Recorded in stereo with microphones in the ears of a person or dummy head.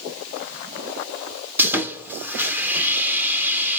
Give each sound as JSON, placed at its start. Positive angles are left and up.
{"t": 1.6, "sound": "sawing", "side_deg": -10, "distance_m": 0.7}